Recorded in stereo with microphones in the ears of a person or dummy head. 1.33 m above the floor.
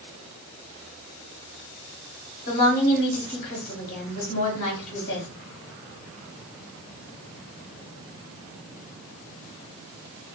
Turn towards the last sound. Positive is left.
turn(degrees=35)  # may be behind; listen again after turning